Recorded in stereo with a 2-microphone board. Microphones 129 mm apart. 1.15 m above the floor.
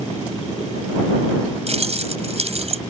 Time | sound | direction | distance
1.7 | keys jangling | 55° right (ahead or behind) | ?